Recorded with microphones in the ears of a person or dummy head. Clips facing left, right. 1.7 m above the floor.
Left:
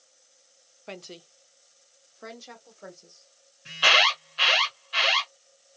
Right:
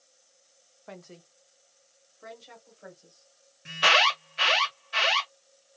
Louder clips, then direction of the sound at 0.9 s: Left 4 dB; 35° left (ahead or behind).